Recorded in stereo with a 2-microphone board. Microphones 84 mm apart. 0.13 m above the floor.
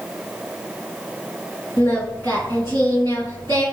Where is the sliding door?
I don't hear a sliding door.